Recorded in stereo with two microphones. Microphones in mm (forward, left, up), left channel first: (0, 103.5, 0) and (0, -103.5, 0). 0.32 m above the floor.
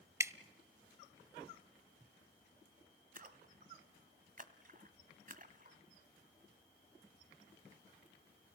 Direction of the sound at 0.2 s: 15° right (ahead or behind).